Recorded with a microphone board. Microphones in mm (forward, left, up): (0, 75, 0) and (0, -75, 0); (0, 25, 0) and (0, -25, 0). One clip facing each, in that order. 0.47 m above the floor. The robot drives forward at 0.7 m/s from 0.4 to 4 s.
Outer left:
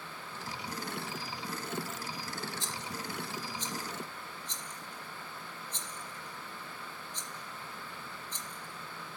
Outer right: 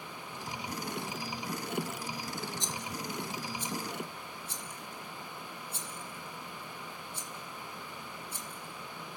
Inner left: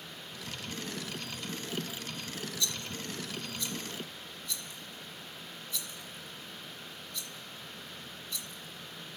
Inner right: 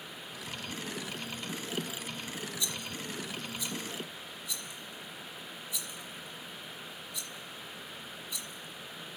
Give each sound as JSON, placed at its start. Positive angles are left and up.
{"t": 2.6, "sound": "a rattle", "side_deg": -20, "distance_m": 0.8}